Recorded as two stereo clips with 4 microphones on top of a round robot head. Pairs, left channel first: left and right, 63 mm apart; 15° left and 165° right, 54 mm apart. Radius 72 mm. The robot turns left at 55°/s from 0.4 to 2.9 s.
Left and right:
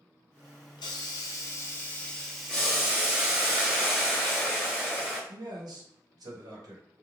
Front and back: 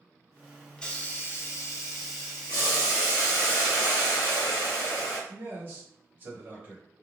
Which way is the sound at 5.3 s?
110° right.